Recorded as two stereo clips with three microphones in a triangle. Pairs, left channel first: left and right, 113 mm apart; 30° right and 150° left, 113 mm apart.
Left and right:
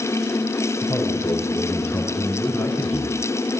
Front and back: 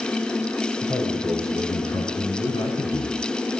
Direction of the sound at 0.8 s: 20° left.